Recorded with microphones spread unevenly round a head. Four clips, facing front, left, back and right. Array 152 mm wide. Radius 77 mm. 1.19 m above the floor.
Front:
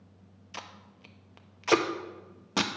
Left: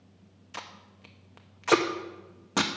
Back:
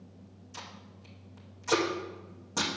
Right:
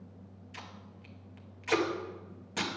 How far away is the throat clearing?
I don't hear throat clearing.